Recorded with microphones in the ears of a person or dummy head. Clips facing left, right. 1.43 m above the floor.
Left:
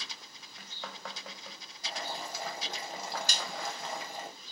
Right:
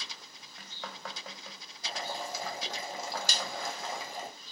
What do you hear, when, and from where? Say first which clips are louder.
1.8 s boiling: right 2 dB; 70° right (ahead or behind), 0.9 m
3.3 s a snare drum: right 2 dB; 65° right (ahead or behind), 0.9 m